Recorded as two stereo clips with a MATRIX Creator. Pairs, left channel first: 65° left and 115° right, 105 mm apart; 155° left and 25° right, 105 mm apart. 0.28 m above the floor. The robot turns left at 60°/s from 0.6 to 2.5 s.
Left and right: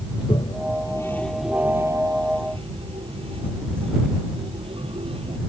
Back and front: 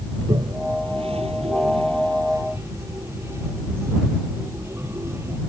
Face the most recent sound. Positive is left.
turn(degrees=-85)